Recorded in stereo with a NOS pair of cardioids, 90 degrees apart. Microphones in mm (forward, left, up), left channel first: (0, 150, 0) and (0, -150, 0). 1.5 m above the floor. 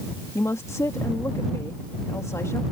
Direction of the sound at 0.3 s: 10° left.